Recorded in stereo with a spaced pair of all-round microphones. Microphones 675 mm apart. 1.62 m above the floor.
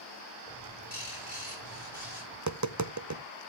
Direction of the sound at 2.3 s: 25° right (ahead or behind).